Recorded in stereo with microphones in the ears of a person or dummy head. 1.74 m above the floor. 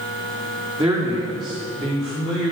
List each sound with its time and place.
0.8 s a man speaking: 10° right (ahead or behind), 4 m; by 2.5 s 5° left (ahead or behind), 6 m